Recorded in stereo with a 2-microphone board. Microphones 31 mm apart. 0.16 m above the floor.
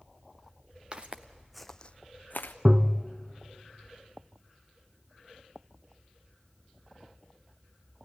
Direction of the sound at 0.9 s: 30° right (ahead or behind).